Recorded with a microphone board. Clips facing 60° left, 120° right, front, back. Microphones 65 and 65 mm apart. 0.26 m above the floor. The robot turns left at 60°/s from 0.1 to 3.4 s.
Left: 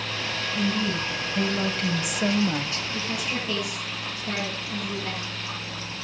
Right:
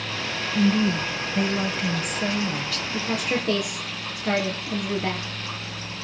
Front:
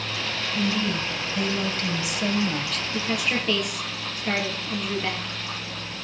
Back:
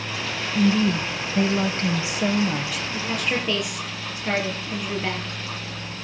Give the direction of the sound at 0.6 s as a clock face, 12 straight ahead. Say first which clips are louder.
Right 6 dB, back 6 dB; 4 o'clock.